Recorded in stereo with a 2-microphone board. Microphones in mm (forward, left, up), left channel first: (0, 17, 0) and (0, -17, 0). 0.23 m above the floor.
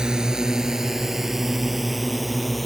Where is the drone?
25° right (ahead or behind); by 2.7 s centre (ahead or behind).